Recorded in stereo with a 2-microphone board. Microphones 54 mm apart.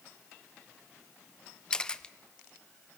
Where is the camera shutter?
15° left (ahead or behind), 0.7 m.